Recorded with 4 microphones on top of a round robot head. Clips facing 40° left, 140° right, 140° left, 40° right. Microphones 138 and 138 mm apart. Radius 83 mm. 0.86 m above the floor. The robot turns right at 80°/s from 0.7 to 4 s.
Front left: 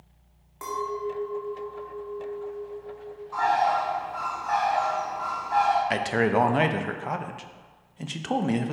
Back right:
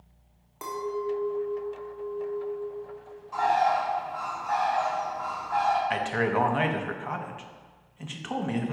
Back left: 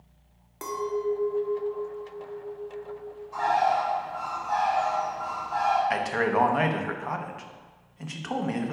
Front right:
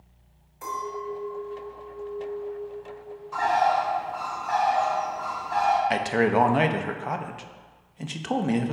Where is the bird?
65° right, 1.0 m; by 5.8 s 10° right, 1.0 m.